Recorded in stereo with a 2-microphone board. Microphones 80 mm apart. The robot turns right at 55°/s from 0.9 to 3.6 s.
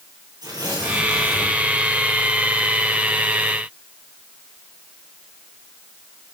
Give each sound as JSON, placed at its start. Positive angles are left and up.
{"t": 0.4, "sound": "tearing paper", "azimuth_deg": -120, "distance_m": 5.5}